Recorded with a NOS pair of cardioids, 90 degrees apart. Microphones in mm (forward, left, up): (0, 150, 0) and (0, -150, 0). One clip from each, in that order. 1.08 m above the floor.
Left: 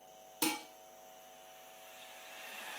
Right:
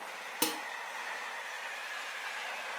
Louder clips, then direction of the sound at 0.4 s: Right 2 dB; 55° right.